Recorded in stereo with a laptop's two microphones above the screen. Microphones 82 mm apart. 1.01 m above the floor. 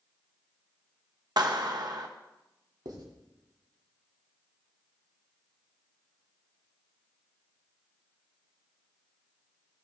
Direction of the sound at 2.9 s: 55° right (ahead or behind).